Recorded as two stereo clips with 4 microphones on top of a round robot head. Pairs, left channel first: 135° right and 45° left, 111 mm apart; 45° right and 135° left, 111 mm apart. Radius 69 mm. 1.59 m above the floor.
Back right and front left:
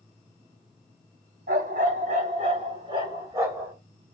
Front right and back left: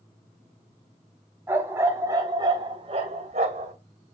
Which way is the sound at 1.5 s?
60° left.